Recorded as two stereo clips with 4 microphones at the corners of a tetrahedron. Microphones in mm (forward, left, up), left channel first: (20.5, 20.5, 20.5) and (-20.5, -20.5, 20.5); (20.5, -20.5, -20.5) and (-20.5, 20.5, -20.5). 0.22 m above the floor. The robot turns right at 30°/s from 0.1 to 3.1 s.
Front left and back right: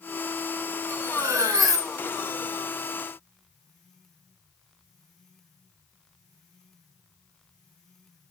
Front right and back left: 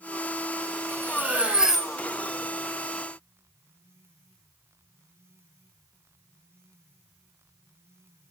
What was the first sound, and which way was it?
Cutlery clinking, 170° right.